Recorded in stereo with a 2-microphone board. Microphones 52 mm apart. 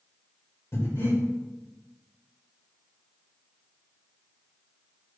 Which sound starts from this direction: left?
Breathing, at 0.7 s.